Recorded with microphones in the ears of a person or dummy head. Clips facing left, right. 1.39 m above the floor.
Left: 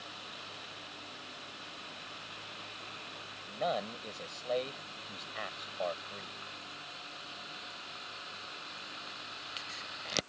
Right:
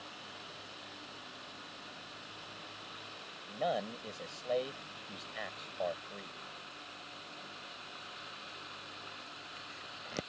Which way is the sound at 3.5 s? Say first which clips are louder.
Even; 10° right (ahead or behind).